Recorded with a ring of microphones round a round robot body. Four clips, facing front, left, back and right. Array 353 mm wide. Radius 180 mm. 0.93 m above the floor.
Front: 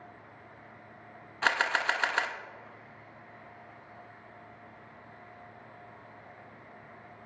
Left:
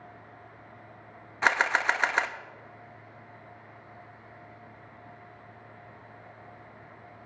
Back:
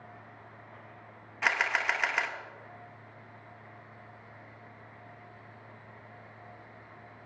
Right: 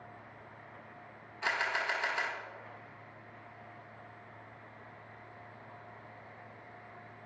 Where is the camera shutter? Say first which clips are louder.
Left 9 dB, front 2 dB; 75° left, 0.6 m.